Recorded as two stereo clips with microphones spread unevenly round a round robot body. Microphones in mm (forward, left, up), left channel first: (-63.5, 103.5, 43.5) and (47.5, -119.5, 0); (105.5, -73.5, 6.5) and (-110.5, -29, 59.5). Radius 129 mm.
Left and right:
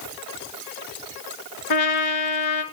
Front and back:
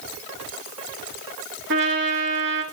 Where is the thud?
No thud in this recording.